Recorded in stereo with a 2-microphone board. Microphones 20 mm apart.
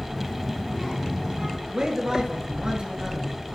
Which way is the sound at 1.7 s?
40° right (ahead or behind).